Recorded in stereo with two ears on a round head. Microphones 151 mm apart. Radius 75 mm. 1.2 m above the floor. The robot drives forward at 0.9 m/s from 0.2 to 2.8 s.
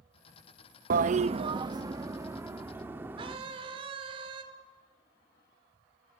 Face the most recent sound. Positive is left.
turn(degrees=-35)  # may be behind; listen again after turning